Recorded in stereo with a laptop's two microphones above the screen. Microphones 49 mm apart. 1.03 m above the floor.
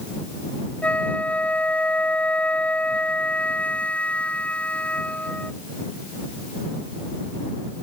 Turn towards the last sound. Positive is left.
turn(degrees=25)  # may be behind; listen again after turning